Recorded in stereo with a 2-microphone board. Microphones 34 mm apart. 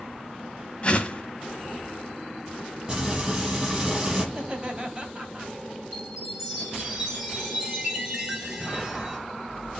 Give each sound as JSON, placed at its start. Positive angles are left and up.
{"t": 0.8, "sound": "a whoosh", "side_deg": 30, "distance_m": 1.5}
{"t": 2.9, "sound": "frying", "side_deg": -20, "distance_m": 6.5}
{"t": 4.3, "sound": "laughter", "side_deg": -25, "distance_m": 3.5}
{"t": 5.9, "sound": "a chime", "side_deg": -15, "distance_m": 6.5}